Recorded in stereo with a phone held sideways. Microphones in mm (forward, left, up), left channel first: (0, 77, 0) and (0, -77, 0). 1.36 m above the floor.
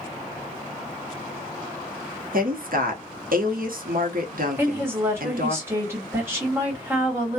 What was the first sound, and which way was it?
A woman speaking, 70° right (ahead or behind).